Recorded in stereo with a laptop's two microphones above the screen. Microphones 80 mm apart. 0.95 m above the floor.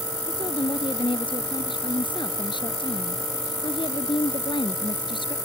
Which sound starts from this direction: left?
A woman speaking, at 0.3 s.